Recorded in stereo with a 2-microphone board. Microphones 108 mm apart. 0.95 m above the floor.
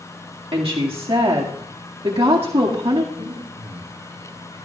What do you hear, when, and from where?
0.5 s a woman speaking: 55° right (ahead or behind), 1.9 m
3.1 s breathing: 55° right (ahead or behind), 8.5 m